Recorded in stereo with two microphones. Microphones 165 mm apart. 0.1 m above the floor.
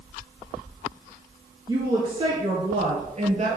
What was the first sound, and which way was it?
A woman speaking, 25° right (ahead or behind).